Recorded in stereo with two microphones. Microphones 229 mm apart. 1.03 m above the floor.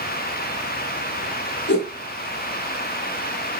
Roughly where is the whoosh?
Left.